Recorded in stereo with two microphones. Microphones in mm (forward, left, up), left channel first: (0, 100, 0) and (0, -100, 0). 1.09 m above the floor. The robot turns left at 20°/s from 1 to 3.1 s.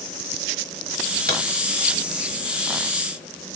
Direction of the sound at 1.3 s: 50° right (ahead or behind).